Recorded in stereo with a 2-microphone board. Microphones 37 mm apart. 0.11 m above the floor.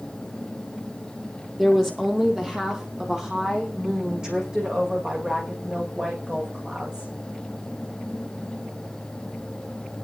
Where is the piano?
I don't hear a piano.